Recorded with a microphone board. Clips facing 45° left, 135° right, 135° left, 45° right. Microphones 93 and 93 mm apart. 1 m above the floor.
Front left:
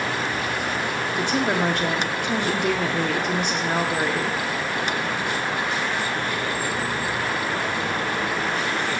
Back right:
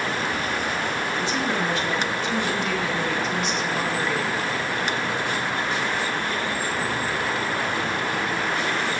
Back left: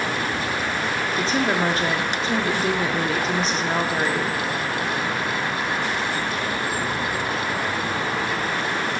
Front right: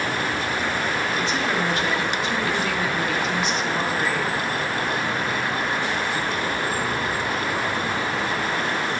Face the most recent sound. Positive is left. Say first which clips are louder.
# front left 5 dB, back left 2 dB
turn(degrees=80)